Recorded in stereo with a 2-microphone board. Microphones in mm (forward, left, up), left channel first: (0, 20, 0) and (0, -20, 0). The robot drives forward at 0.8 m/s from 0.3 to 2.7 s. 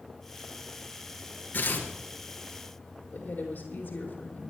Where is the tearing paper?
50° left (ahead or behind), 3 m.